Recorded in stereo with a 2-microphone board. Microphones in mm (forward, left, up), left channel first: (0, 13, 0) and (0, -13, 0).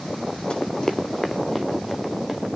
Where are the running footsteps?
40° left (ahead or behind), 1.2 m; by 2.5 s 5° right (ahead or behind), 2.5 m.